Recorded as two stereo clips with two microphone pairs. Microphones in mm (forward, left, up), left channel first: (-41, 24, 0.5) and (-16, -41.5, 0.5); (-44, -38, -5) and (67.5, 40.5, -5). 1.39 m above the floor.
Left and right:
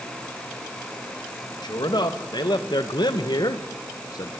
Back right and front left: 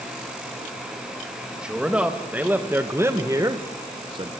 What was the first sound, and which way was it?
A man speaking, 120° left.